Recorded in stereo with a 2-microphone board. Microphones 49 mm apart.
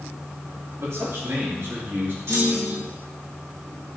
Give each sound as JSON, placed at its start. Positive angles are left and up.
{"t": 0.8, "sound": "a man speaking", "side_deg": -70, "distance_m": 4.5}
{"t": 2.3, "sound": "a clunk", "side_deg": -75, "distance_m": 3.0}